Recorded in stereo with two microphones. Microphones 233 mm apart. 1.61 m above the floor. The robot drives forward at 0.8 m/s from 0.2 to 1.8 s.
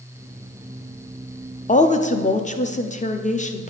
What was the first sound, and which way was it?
A woman speaking, 35° left (ahead or behind).